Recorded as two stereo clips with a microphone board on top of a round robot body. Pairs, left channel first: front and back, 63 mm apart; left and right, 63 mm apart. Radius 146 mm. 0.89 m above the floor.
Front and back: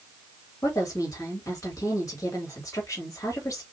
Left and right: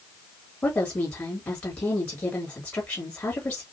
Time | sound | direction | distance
0.6 | a woman speaking | 35° left | 2.5 m